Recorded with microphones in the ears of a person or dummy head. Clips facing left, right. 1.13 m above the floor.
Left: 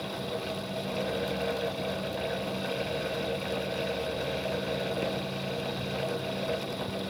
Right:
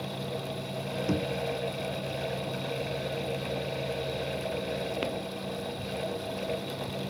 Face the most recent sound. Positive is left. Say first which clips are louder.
# right 5 dB
turn(degrees=-85)